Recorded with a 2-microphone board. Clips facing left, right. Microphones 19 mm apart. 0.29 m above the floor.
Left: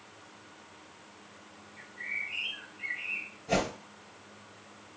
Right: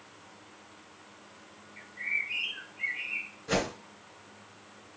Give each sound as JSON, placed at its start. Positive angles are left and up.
{"t": 1.8, "sound": "a bird", "side_deg": -45, "distance_m": 1.6}
{"t": 3.5, "sound": "a whoosh", "side_deg": -60, "distance_m": 3.0}